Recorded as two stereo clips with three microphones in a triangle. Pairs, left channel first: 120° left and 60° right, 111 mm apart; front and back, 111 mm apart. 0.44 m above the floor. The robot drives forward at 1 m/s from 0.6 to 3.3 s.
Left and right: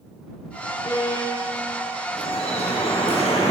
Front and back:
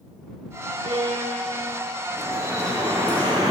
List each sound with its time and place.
0.8 s a violin: 170° left, 1.7 m; by 1.9 s 175° left, 2.5 m
2.1 s dripping: 115° left, 2.5 m; by 3.5 s 135° left, 3.5 m